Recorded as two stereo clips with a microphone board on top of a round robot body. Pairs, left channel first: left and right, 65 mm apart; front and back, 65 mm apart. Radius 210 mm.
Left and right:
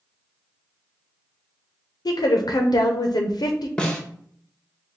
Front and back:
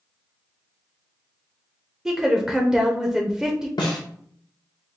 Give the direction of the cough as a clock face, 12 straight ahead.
I don't hear a cough.